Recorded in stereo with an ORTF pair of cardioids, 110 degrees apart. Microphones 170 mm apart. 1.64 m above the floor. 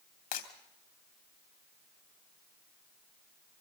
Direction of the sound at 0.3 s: 60° left.